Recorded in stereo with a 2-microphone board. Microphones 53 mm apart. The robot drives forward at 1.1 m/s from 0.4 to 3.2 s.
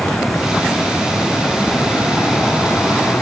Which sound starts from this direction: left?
An aircraft, at 0.0 s.